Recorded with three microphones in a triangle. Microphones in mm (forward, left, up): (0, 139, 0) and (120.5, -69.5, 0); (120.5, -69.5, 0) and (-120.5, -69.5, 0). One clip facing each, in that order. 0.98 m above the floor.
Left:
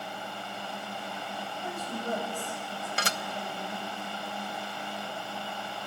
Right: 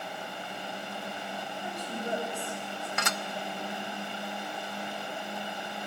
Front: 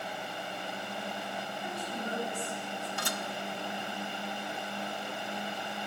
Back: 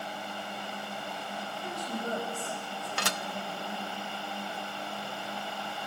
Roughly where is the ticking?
No ticking in this recording.